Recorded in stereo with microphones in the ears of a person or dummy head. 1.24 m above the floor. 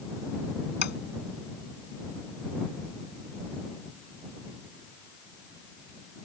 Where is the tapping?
55° left (ahead or behind).